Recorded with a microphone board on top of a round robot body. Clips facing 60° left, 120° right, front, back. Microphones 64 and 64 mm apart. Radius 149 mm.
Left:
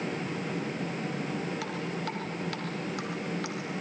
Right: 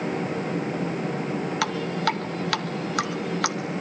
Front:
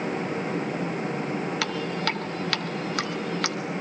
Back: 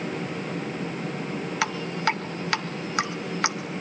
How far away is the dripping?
About 1.1 m.